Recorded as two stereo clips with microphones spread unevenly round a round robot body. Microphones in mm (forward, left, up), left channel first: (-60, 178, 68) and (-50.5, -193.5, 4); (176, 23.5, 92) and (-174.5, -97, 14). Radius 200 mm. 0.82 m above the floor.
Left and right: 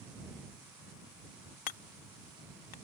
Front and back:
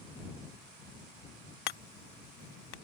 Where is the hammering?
55° left.